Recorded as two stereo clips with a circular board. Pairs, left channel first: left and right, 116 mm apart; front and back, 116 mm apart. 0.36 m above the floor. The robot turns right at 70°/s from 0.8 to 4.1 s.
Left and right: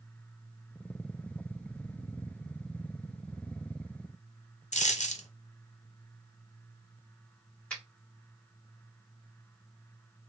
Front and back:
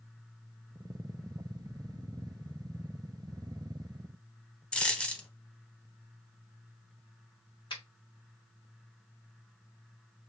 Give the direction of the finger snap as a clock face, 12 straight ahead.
12 o'clock.